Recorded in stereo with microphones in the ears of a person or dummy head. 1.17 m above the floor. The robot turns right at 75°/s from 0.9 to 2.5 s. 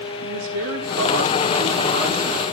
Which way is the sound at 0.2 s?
110° right.